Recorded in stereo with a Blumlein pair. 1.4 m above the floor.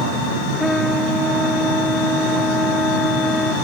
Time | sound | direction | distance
0.6 | a trumpet | straight ahead | ?